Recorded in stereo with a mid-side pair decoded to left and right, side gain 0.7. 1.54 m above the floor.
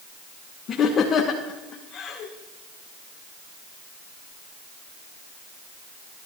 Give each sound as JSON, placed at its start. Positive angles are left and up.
{"t": 0.7, "sound": "laughter", "azimuth_deg": 40, "distance_m": 1.7}